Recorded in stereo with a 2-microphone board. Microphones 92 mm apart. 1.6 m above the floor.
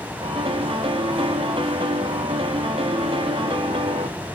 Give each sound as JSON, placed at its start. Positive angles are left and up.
{"t": 0.2, "sound": "a piano", "side_deg": -75, "distance_m": 3.0}